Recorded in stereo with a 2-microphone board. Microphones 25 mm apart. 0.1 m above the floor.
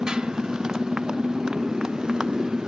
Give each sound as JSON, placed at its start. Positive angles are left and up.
{"t": 0.0, "sound": "a motorcycle", "side_deg": -35}